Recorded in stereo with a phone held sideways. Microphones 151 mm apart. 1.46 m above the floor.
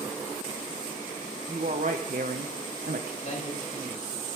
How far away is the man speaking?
About 6.5 m.